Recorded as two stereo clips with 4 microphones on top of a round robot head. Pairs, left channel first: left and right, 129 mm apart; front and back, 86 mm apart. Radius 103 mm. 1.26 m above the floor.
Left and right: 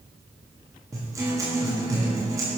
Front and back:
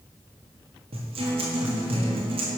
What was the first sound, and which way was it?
A guitar, 160° right.